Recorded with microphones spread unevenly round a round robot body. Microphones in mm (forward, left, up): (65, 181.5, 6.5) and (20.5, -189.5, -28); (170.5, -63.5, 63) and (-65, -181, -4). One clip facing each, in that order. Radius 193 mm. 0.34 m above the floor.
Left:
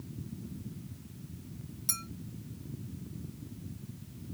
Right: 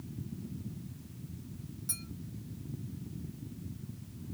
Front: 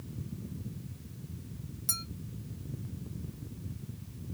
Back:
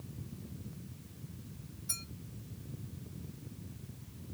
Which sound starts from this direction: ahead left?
A clink, at 1.9 s.